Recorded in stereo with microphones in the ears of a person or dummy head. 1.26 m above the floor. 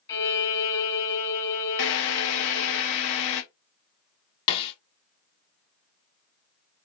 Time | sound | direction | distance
0.1 | a violin | 20° left (ahead or behind) | 1.5 m
1.8 | a drill | 60° left (ahead or behind) | 0.7 m
4.5 | a snare drum | 30° left (ahead or behind) | 0.8 m